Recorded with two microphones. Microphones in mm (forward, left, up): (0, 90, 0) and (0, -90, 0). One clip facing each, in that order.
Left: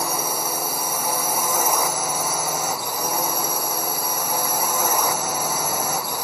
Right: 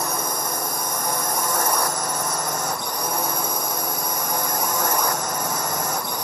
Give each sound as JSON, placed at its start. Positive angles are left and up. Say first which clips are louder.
{"t": 0.0, "sound": "a drone", "louder": "left 1 dB", "side_deg": 5}